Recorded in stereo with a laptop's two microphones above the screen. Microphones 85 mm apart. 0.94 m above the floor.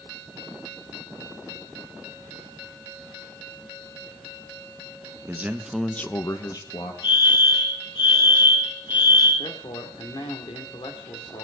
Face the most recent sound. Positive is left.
turn(degrees=70)  # may be behind; listen again after turning